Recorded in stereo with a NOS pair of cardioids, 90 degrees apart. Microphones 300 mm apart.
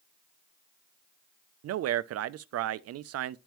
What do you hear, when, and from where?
1.6 s a man speaking: 55° right, 0.5 m